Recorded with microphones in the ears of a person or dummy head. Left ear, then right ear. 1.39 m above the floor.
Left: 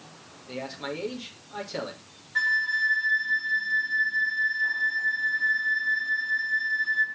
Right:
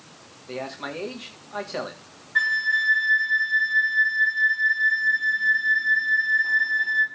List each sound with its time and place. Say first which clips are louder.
0.5 s a man speaking: right 2 dB; 25° right (ahead or behind), 3.5 m
2.4 s a flute: right 3 dB; 10° right (ahead or behind), 2.5 m